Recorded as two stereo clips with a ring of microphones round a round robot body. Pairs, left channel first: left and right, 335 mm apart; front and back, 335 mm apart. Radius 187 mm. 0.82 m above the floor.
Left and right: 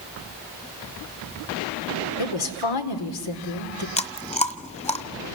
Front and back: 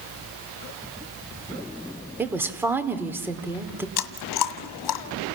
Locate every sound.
2.2 s a woman speaking: 95° left, 2.5 m
4.0 s chewing: 20° left, 1.6 m